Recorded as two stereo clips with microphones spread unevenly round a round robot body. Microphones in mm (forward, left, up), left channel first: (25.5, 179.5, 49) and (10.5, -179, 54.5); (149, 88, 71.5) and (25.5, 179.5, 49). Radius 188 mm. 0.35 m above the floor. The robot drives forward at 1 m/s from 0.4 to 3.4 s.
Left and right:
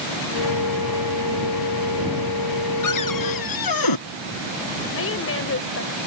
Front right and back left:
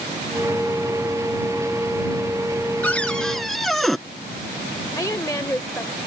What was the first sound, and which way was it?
A cupboard door, 45° left.